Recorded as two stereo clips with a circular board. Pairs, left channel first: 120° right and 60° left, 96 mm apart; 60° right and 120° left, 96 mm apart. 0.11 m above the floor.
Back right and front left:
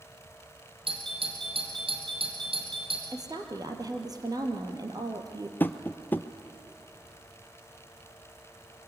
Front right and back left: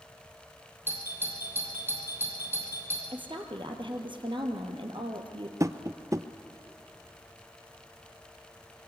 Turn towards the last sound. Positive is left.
turn(degrees=175)